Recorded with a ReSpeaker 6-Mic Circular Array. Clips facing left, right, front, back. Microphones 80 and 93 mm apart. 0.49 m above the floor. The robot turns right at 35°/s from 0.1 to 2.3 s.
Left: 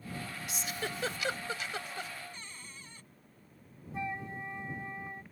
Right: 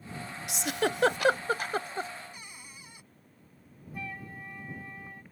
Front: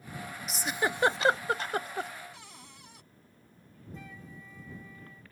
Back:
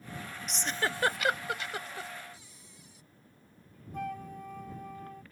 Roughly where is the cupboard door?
Ahead.